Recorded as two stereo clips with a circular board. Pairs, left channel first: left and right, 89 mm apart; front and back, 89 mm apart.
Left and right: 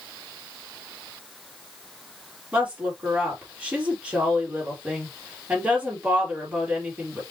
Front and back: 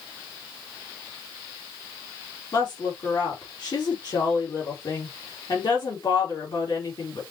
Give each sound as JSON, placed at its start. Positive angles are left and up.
{"t": 2.5, "sound": "a woman speaking", "azimuth_deg": -15, "distance_m": 2.5}